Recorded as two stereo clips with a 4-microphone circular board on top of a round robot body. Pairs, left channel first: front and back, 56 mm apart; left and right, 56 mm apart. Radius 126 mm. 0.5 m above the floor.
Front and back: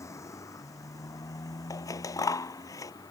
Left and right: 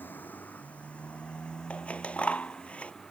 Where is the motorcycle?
35° left; by 3.1 s 5° left.